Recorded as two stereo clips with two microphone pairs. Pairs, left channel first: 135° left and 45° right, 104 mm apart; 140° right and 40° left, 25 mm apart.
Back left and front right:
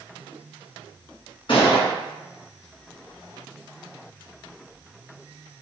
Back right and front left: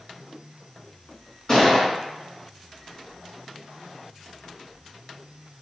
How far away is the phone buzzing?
No phone buzzing in this recording.